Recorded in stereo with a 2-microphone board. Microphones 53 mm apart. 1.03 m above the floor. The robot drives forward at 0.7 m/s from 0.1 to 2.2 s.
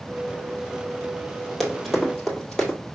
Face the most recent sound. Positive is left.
turn(degrees=15)  # may be behind; listen again after turning